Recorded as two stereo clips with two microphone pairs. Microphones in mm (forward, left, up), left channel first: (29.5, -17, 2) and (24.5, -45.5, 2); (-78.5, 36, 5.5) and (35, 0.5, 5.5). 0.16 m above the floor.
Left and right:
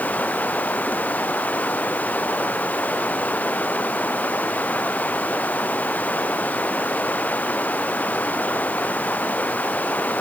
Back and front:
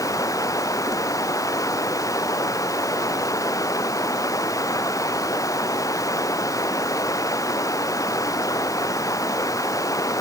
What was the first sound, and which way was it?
Running water, 100° left.